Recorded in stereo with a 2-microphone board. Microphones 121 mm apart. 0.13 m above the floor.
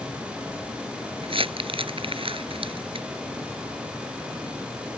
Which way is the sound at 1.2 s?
55° right (ahead or behind).